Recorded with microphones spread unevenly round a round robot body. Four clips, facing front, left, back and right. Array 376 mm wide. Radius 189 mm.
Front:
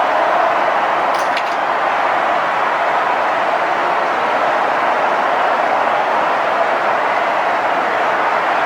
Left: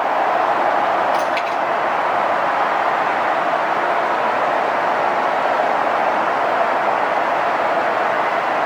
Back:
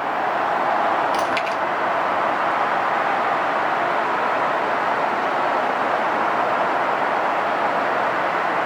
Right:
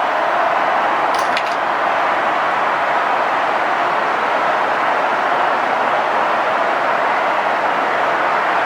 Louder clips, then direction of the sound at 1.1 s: Right 1 dB, front 4 dB; 140° right.